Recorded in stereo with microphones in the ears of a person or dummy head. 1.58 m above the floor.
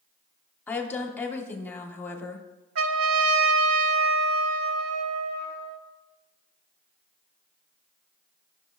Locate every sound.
0.7 s a woman speaking: 15° left (ahead or behind), 0.9 m
2.8 s a trumpet: 60° right (ahead or behind), 0.9 m